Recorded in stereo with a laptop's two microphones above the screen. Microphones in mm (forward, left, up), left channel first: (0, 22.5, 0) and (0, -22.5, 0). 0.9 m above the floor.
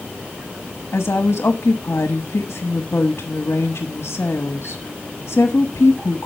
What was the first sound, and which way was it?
A woman speaking, 65° left (ahead or behind).